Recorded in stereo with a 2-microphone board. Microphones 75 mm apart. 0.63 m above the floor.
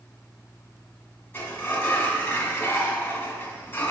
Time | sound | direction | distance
1.3 | a sliding door | 30° left (ahead or behind) | 1.6 m